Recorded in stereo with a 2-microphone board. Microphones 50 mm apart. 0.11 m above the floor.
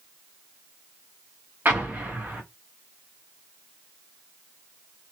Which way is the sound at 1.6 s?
40° right (ahead or behind).